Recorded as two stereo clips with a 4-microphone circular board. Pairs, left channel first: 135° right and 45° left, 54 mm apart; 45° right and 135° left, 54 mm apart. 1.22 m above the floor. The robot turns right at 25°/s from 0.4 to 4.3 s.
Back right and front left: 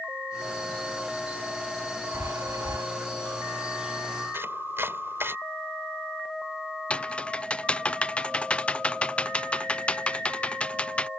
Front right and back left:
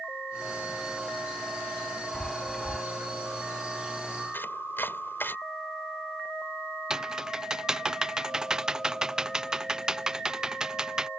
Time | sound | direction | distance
2.1 | a chime | 25° left | ?
4.3 | chopping | straight ahead | ?
6.9 | typing on a keyboard | 165° right | ?